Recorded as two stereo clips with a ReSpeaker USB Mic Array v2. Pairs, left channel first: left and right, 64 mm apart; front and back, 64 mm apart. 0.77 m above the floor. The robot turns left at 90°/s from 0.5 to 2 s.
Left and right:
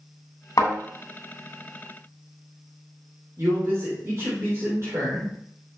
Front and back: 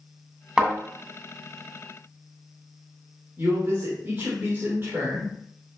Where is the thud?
95° left, 2.5 m; by 0.7 s 85° left, 2.5 m.